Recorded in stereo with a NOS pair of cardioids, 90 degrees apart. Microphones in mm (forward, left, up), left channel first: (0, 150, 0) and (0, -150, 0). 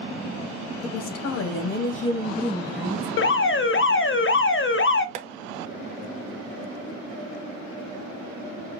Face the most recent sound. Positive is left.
turn(degrees=-25)